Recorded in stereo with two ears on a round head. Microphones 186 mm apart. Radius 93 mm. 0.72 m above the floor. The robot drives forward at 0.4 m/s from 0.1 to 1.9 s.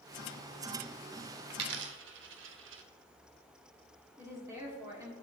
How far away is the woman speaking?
About 2 m.